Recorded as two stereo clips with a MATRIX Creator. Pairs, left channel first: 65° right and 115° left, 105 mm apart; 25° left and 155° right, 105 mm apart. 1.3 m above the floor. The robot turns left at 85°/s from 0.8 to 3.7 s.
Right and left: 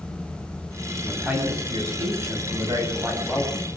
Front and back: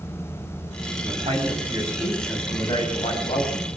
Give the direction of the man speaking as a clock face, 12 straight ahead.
5 o'clock.